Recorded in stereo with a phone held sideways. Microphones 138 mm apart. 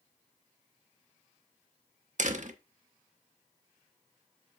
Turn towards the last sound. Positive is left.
turn(degrees=-60)  # may be behind; listen again after turning